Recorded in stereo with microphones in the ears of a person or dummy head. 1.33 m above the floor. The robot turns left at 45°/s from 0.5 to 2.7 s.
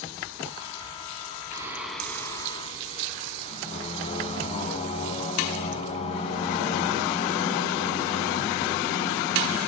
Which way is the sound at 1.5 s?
160° right.